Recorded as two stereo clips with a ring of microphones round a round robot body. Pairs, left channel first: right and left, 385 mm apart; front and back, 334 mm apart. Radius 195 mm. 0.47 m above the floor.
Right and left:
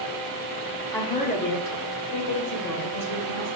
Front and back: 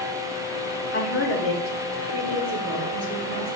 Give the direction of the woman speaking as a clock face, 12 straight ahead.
12 o'clock.